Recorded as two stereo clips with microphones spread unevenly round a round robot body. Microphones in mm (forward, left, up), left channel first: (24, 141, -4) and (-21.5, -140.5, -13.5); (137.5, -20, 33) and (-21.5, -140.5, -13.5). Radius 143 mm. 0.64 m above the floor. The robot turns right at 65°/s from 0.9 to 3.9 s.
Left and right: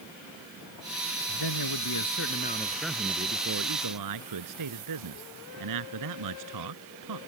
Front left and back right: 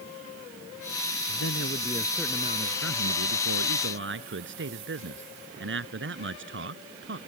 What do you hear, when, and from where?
1.3 s a man speaking: 70° left; by 7.2 s 120° right